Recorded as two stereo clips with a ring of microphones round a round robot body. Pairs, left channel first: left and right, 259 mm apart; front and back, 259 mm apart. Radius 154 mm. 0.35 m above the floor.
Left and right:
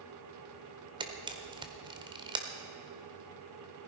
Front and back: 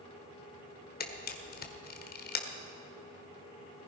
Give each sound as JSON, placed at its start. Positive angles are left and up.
{"t": 1.0, "sound": "a camera shutter", "azimuth_deg": -25, "distance_m": 1.4}